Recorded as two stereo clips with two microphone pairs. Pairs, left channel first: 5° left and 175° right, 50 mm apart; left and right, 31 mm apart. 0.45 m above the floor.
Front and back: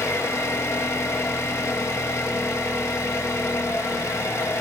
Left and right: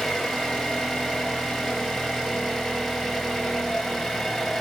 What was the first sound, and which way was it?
An engine running, straight ahead.